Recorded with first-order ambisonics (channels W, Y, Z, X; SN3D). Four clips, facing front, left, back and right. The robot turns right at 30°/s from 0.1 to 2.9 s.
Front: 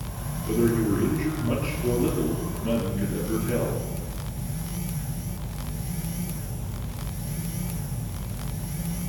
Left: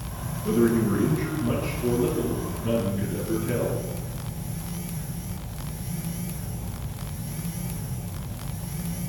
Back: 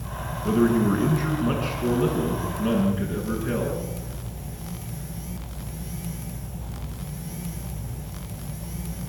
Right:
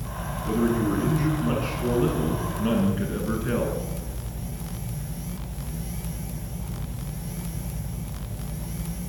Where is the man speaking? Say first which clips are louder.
Left 2 dB, back 3 dB; 170° left, 6.5 m; by 3.9 s 115° right, 6.5 m.